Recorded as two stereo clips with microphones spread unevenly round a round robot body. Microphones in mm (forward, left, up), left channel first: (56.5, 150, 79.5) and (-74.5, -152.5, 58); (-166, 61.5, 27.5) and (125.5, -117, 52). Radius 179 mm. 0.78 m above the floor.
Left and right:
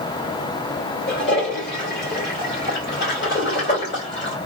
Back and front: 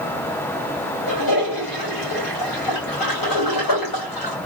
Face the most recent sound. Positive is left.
turn(degrees=125)